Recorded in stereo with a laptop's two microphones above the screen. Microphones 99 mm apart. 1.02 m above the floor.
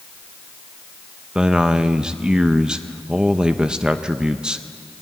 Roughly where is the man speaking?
Centre.